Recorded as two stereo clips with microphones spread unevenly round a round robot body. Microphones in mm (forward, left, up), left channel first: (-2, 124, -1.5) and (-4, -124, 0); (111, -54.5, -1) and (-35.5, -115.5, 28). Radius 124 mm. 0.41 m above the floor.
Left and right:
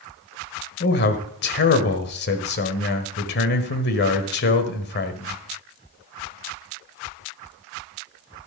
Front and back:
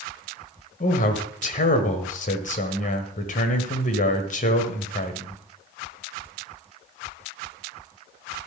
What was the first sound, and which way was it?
A man speaking, 45° left.